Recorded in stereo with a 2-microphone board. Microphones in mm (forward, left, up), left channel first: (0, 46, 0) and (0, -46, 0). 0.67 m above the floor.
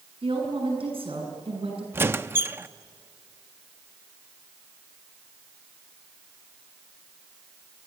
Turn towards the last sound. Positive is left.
turn(degrees=-25)  # may be behind; listen again after turning